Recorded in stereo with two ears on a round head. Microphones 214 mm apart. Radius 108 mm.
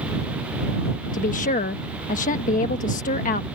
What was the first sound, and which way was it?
A woman speaking, 35° left (ahead or behind).